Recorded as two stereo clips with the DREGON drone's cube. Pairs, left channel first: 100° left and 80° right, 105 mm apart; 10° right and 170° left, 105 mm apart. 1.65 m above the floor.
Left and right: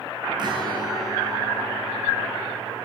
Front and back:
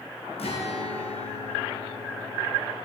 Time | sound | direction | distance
0.4 | a guitar | 30° right | 1.6 m